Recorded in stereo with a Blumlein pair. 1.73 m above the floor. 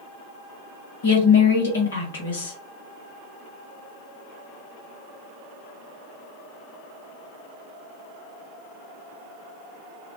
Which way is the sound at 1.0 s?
65° left.